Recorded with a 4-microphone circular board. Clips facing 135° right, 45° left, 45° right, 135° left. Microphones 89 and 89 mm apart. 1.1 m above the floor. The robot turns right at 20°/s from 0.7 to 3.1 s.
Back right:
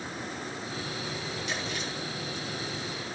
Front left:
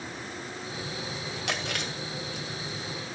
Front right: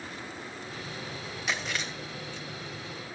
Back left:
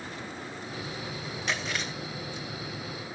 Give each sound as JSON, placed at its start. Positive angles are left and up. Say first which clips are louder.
{"t": 1.5, "sound": "chewing", "louder": "front left 4 dB, even", "azimuth_deg": 45, "distance_m": 2.5}